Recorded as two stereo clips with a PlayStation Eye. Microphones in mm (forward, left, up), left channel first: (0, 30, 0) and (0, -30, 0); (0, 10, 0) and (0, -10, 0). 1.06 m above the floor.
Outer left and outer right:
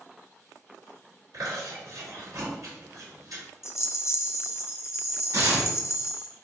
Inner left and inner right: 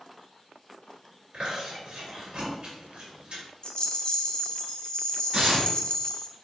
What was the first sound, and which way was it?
Chewing, 75° right (ahead or behind).